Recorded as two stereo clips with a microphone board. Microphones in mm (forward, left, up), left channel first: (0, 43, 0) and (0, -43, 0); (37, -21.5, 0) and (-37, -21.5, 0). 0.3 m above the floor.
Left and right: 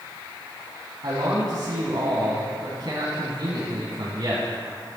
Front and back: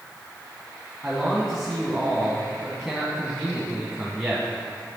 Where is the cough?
I don't hear a cough.